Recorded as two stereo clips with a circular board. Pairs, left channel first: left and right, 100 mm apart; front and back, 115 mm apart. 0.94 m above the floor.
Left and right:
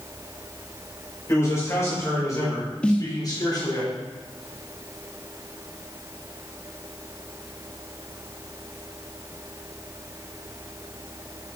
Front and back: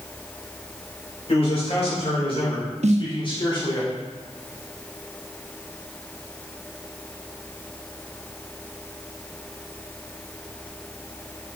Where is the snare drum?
170° left, 0.8 m.